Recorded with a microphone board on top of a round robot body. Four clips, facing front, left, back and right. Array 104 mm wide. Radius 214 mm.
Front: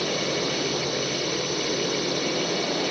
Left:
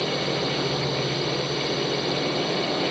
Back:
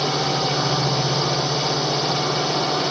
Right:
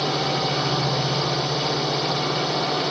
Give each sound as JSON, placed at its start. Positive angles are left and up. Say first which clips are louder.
{"t": 0.0, "sound": "a drone", "louder": "right 2 dB, back 4 dB", "azimuth_deg": -150}